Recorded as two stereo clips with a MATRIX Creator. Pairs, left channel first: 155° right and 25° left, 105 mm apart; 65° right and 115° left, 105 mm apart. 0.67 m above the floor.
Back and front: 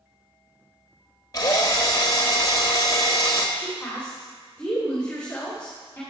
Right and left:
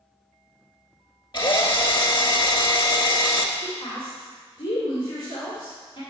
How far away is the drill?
About 1.0 m.